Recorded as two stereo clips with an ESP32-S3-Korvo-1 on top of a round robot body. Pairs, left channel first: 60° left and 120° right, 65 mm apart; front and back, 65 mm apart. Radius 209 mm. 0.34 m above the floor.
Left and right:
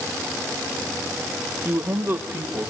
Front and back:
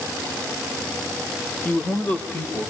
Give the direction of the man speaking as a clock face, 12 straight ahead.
2 o'clock.